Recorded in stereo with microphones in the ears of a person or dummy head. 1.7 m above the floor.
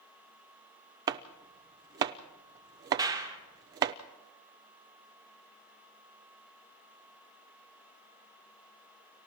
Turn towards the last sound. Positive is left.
turn(degrees=-25)  # may be behind; listen again after turning